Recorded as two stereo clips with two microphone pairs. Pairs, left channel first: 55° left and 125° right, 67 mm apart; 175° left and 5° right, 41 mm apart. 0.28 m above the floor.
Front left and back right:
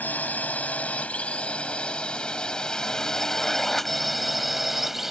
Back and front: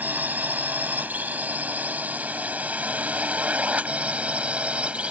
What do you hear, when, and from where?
0.0 s a drone: 5° left; by 5.1 s 40° right